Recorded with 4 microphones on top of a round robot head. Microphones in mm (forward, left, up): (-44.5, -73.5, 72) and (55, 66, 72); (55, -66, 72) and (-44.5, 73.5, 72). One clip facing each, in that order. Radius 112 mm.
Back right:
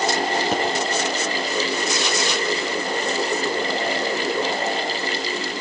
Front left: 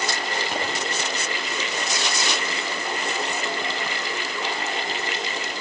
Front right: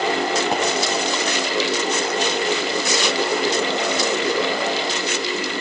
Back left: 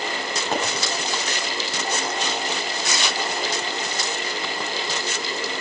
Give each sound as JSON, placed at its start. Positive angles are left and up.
{"t": 0.5, "sound": "a pop", "azimuth_deg": -130, "distance_m": 5.5}